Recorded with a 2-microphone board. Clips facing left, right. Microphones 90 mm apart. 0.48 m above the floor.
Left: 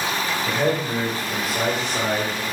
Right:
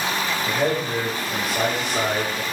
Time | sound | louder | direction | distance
0.5 | a man speaking | left 1 dB | 20° left (ahead or behind) | 2.5 m